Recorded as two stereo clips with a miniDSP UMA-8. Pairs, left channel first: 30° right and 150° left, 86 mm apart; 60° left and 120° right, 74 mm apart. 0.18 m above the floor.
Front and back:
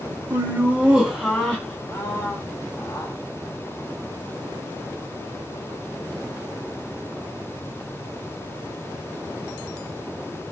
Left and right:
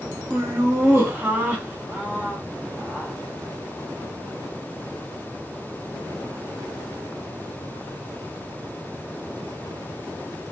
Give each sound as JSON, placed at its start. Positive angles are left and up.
{"t": 0.3, "sound": "laughter", "azimuth_deg": -160, "distance_m": 1.3}